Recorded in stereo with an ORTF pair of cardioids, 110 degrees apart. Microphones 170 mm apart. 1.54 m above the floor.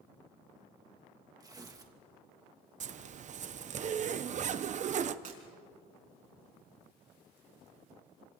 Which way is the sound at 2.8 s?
45° right.